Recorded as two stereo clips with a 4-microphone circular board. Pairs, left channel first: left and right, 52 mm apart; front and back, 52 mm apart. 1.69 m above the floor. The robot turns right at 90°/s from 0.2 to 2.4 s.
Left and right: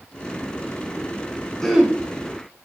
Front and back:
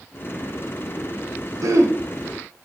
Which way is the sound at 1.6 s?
170° left.